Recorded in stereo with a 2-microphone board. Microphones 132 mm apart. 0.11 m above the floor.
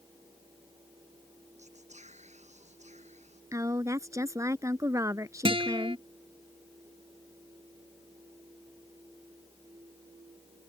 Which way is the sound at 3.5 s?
25° right (ahead or behind).